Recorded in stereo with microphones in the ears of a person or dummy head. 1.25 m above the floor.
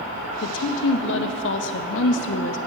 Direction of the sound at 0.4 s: 70° left (ahead or behind).